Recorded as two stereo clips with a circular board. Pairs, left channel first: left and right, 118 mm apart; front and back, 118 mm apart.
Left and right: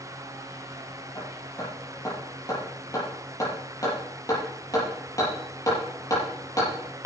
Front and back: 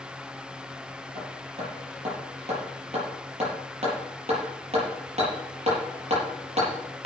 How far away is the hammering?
About 6.5 m.